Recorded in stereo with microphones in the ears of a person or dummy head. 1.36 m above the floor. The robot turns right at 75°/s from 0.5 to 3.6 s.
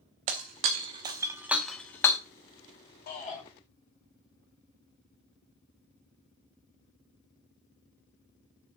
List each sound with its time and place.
0.3 s breaking glass: 30° right (ahead or behind), 0.9 m; by 2.2 s 20° left (ahead or behind), 0.9 m
3.1 s a shout: 55° left (ahead or behind), 2.5 m; by 3.4 s 25° left (ahead or behind), 2.5 m